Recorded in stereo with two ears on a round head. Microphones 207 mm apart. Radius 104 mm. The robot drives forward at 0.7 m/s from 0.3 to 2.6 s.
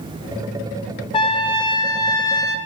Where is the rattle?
I don't hear a rattle.